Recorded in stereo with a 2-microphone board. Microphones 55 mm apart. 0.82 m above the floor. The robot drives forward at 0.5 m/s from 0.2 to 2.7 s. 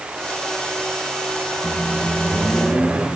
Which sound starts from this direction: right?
A microwave, at 1.6 s.